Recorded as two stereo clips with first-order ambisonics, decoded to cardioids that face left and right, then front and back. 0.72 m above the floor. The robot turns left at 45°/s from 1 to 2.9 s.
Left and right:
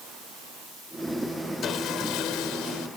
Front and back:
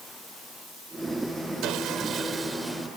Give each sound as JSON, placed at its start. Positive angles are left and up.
{"t": 1.6, "sound": "sawing", "azimuth_deg": 145}